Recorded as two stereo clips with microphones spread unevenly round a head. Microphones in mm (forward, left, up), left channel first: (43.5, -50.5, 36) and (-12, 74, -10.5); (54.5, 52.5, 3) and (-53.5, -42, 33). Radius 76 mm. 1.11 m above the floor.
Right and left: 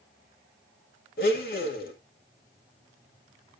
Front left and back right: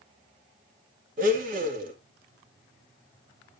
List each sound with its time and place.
1.2 s a blender: 100° right, 1.9 m